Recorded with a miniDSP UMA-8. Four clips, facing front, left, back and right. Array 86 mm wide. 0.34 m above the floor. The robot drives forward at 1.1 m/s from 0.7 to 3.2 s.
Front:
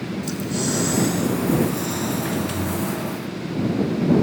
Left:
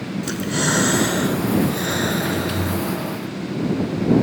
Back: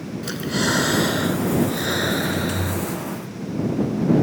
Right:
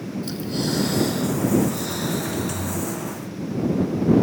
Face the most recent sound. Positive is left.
turn(degrees=150)